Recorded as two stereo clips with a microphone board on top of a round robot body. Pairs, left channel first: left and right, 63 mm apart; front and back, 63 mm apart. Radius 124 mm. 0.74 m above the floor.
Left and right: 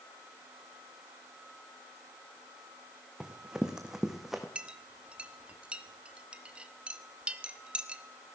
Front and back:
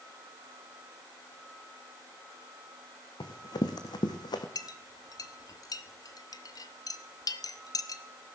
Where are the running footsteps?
10° right, 2.5 m; by 4.5 s 5° right, 1.9 m.